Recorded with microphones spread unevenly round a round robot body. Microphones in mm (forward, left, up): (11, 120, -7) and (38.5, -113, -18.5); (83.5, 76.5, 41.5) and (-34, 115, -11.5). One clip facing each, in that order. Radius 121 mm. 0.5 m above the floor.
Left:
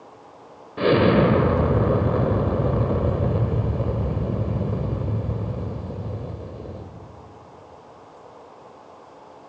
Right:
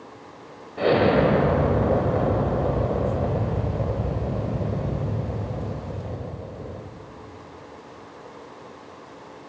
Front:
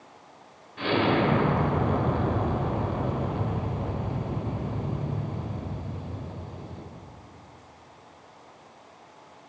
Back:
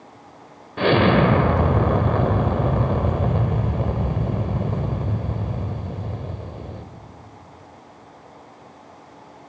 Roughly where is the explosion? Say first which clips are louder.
Left 2 dB, back 7 dB; behind.